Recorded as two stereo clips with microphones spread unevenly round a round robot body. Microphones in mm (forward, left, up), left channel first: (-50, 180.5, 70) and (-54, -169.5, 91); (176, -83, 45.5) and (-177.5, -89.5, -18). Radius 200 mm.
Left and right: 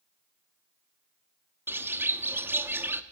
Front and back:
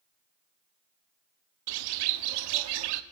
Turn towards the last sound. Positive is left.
turn(degrees=-175)